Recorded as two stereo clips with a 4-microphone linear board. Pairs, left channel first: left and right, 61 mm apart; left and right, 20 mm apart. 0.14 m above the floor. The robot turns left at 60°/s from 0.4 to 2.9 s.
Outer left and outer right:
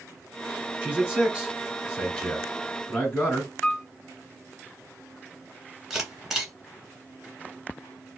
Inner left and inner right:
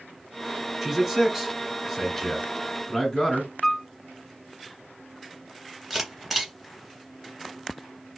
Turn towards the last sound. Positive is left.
turn(degrees=-5)  # may be behind; listen again after turning